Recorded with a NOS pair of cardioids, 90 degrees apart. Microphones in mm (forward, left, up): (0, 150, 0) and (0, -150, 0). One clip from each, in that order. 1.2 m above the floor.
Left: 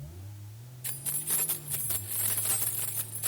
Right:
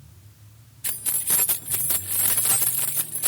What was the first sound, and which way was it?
Keys jangling, 40° right.